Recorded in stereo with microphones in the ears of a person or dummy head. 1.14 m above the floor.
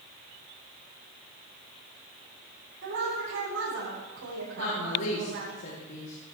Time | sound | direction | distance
2.8 | a woman speaking | 80° right | 6.5 m
4.6 | a woman speaking | 70° left (ahead or behind) | 3 m